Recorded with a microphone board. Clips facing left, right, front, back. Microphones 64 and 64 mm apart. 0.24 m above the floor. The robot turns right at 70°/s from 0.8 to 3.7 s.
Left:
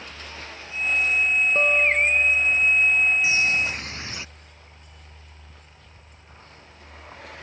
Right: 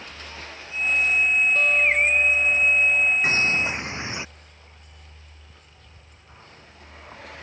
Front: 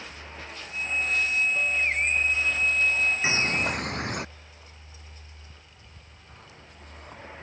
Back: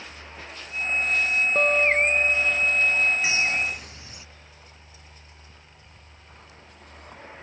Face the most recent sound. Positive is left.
turn(degrees=-25)